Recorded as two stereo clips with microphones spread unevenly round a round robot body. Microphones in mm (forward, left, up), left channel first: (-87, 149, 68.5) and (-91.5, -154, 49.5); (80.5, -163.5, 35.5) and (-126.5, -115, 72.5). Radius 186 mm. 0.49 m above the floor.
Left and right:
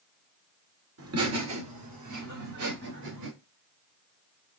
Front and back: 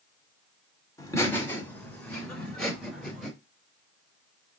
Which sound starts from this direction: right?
Laughter, at 1.0 s.